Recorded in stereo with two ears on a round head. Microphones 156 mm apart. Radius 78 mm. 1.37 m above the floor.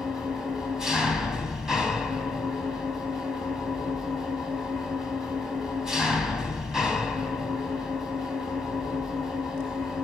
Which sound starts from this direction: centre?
An engine running, at 0.0 s.